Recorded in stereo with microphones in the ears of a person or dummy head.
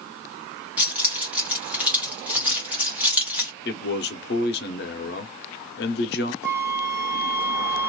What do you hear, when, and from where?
0.8 s keys jangling: 5° right (ahead or behind), 1.0 m
3.6 s a man speaking: 50° left (ahead or behind), 0.6 m
6.4 s a flute: 10° right (ahead or behind), 0.5 m